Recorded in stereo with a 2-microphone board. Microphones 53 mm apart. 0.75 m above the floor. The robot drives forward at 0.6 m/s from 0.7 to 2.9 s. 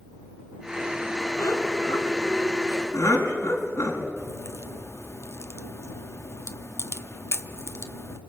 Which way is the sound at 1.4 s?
70° left (ahead or behind).